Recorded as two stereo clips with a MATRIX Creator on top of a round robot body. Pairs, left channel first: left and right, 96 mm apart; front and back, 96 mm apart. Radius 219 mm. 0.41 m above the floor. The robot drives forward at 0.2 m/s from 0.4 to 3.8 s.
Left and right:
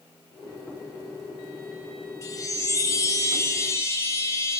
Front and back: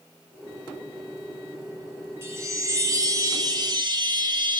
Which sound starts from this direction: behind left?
A chime, at 2.2 s.